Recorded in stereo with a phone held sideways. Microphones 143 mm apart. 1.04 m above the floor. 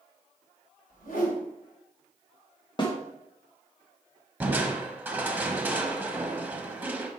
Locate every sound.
0.9 s a whoosh: 80° left, 3 m
2.8 s a snare drum: 35° left (ahead or behind), 1.3 m
4.4 s crushing: 15° right (ahead or behind), 1.0 m